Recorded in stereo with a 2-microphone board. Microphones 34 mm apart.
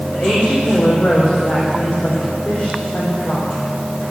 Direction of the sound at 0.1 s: 65° left (ahead or behind).